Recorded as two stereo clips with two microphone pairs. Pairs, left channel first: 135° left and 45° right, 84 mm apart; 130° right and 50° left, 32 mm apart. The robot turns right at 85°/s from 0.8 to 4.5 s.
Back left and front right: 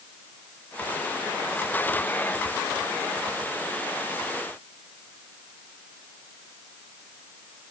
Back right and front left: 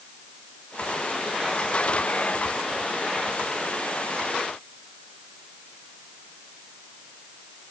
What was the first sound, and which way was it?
Only background noise.